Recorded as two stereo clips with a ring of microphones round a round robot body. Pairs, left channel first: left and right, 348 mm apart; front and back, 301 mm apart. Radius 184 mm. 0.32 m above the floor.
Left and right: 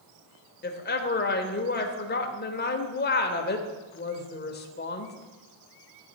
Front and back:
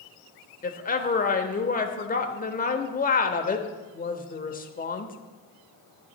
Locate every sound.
0.6 s a woman speaking: 45° left, 1.0 m